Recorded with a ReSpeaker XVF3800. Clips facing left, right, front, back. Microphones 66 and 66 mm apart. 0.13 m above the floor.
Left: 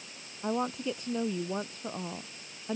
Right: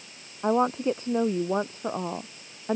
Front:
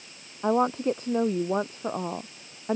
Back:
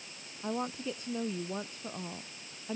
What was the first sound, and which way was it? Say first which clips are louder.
A woman speaking: right 8 dB, front 12 dB; 35° right.